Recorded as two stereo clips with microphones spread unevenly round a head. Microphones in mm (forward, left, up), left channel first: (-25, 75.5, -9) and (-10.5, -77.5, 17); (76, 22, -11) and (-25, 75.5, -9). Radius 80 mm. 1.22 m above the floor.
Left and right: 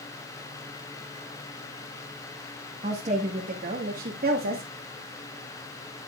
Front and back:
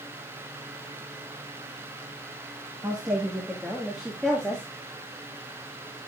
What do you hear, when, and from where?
2.8 s a woman speaking: 135° right, 1.8 m; by 4.6 s 115° right, 2.5 m